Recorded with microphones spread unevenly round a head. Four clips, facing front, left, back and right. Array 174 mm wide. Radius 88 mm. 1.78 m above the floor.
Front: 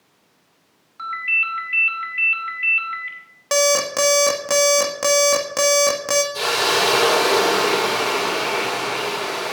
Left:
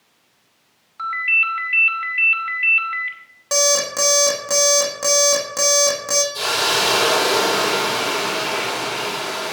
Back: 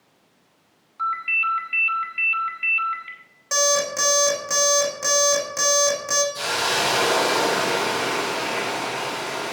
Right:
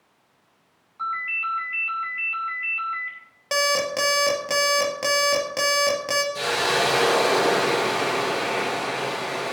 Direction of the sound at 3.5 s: Straight ahead.